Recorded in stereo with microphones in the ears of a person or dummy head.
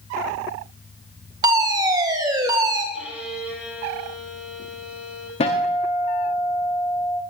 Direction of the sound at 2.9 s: 10° right (ahead or behind).